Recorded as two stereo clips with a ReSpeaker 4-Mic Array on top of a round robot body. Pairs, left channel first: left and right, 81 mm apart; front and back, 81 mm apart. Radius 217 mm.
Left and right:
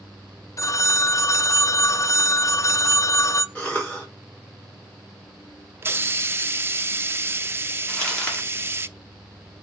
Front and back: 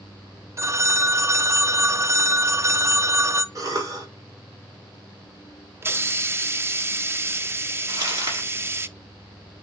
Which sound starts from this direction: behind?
Crumpling, at 7.9 s.